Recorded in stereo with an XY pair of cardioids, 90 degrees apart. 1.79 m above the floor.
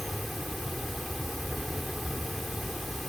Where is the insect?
5° left.